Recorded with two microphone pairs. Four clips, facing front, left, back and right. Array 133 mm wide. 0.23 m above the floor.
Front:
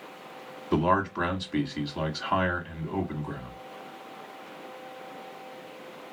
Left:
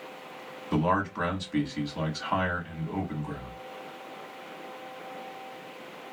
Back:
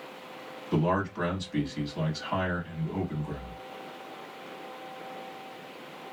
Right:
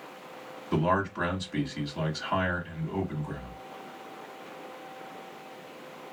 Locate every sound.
0.7 s a man speaking: 10° left, 1.3 m